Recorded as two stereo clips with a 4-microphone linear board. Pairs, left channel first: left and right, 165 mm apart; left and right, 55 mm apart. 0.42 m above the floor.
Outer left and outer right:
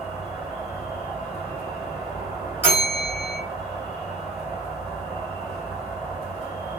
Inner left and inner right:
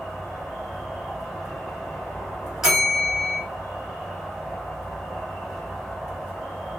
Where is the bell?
15° right (ahead or behind), 1.3 m.